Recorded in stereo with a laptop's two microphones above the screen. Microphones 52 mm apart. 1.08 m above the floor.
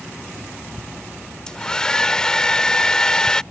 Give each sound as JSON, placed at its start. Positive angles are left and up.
{"t": 1.5, "sound": "a hair dryer", "side_deg": 15}